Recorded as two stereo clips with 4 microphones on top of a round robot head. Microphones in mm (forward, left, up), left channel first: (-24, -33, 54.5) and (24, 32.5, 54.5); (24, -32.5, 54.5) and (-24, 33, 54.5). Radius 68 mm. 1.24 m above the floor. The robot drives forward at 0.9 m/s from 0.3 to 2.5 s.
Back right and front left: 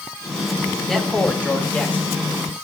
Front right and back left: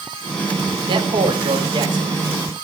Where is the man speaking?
150° left, 1.8 m; by 2.1 s 160° left, 3 m.